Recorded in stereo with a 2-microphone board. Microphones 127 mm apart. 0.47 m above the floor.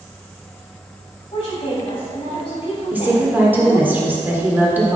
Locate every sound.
1.3 s a woman speaking: 45° left (ahead or behind), 3 m
2.9 s a woman speaking: 15° right (ahead or behind), 1.5 m